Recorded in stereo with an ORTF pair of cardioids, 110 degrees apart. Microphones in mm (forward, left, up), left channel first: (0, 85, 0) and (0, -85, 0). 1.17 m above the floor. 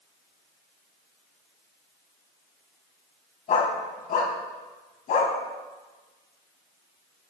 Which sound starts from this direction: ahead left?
A dog barking, at 3.5 s.